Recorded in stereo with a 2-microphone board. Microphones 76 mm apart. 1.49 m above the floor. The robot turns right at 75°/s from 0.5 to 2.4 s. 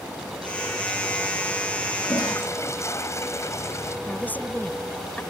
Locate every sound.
2.0 s a toilet flushing: 65° left (ahead or behind); by 4.0 s 40° left (ahead or behind)
4.1 s a woman speaking: 20° left (ahead or behind)